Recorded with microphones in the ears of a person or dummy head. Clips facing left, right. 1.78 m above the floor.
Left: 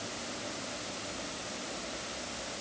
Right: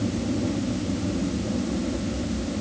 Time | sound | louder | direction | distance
0.0 | an aircraft | right 16 dB | 70° right (ahead or behind) | ?